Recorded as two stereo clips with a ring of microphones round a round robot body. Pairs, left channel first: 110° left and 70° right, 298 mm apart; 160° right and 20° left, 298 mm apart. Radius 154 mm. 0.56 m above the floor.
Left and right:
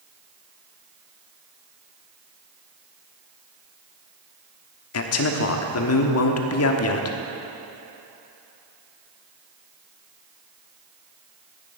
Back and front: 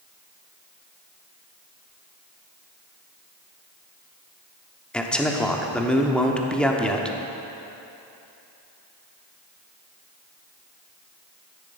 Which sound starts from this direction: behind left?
A man speaking, at 4.9 s.